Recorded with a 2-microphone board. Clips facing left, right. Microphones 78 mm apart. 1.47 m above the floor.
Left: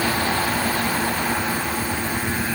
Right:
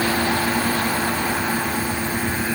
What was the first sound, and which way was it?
Only background noise.